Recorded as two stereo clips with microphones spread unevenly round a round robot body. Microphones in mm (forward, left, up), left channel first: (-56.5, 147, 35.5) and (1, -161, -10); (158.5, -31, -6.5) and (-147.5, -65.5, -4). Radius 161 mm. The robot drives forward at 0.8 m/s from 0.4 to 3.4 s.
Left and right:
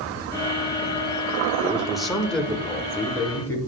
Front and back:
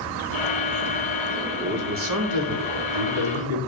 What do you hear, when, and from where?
1.6 s a man speaking: 140° right, 0.7 m; by 3.6 s 175° right, 1.8 m